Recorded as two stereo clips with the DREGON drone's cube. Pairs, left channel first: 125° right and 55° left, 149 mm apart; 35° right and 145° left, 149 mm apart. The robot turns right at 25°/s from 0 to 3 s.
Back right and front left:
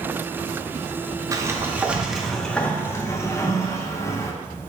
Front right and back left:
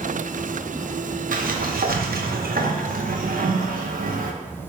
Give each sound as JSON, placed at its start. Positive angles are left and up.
{"t": 1.3, "sound": "a sliding door", "azimuth_deg": 125, "distance_m": 0.5}